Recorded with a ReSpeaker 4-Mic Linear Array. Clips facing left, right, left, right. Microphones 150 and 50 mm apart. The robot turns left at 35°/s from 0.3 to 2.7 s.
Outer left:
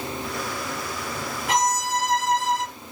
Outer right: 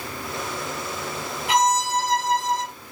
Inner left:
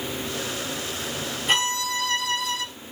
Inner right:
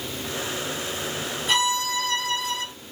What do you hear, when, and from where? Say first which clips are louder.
1.5 s a violin: outer right 3 dB, inner right 1 dB; 130° left, 2.5 m; by 2.6 s 90° left, 2.5 m